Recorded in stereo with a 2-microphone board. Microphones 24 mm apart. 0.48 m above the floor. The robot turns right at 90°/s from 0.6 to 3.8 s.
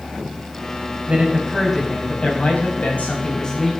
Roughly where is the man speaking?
Right.